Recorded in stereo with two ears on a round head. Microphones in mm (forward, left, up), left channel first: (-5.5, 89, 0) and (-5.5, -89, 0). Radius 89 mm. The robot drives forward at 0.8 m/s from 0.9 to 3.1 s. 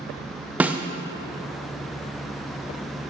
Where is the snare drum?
10° right (ahead or behind), 0.6 m.